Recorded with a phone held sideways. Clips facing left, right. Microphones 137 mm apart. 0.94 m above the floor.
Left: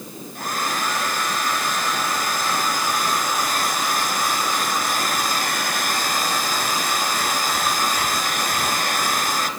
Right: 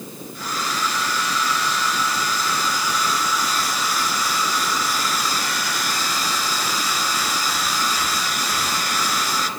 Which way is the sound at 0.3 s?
50° left (ahead or behind).